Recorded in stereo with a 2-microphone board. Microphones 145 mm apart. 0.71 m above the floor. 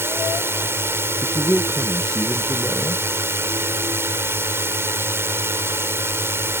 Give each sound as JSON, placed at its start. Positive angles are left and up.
{"t": 0.0, "sound": "a drone", "side_deg": -15}
{"t": 1.2, "sound": "a man speaking", "side_deg": 5}